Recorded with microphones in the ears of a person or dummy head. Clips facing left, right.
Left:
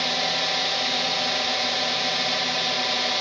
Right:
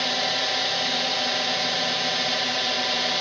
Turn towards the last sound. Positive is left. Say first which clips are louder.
# even
turn(degrees=-5)  # may be behind; listen again after turning